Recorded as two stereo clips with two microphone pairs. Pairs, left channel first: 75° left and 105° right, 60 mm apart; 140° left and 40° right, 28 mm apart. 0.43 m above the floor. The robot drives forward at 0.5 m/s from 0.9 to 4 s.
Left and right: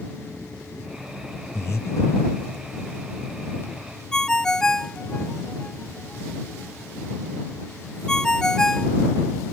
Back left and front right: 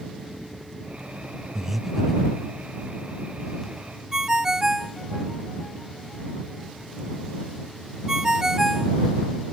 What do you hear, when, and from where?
1.6 s breathing: 40° left; by 2.5 s 80° left
4.1 s a ringtone: 10° left